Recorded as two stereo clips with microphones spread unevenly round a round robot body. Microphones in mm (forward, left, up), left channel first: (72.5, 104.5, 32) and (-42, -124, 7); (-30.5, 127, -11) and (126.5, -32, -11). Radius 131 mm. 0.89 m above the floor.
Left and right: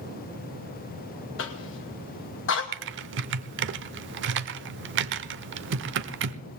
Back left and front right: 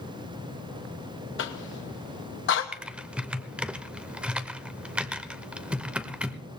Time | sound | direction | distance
1.4 | a cough | 105° left | 1.0 m
2.7 | typing on a keyboard | 130° right | 0.6 m